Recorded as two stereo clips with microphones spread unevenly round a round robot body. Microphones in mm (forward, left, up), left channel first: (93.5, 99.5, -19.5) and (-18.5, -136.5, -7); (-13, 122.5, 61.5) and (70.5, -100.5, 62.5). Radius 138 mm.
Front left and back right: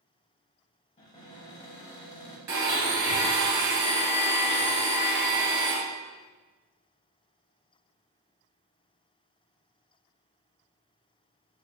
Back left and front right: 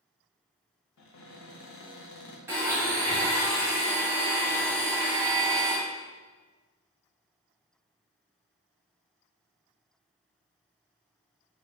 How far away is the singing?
No singing in this recording.